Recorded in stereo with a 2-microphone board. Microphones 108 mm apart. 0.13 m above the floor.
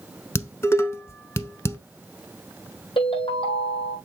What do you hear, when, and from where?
0.3 s dishes clattering: 25° left (ahead or behind), 0.8 m
3.0 s a ringtone: 55° left (ahead or behind), 4 m